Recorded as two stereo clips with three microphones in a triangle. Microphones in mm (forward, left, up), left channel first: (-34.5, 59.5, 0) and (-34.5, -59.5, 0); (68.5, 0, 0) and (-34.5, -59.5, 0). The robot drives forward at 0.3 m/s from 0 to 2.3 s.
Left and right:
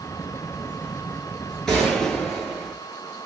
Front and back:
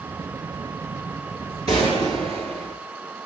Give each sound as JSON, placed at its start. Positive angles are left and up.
{"t": 1.7, "sound": "a gunshot", "azimuth_deg": 175, "distance_m": 4.5}